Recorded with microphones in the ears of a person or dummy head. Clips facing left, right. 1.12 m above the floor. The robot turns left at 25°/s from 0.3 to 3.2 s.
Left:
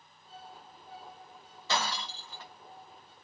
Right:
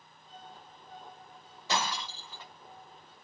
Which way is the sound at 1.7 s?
10° right (ahead or behind).